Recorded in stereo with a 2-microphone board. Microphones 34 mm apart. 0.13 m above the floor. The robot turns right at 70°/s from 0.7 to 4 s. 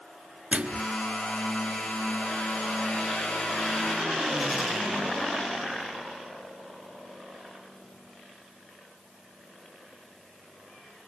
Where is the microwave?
40° right (ahead or behind), 1.0 m.